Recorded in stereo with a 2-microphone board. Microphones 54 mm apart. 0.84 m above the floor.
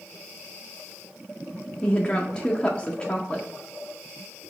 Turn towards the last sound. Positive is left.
turn(degrees=15)  # may be behind; listen again after turning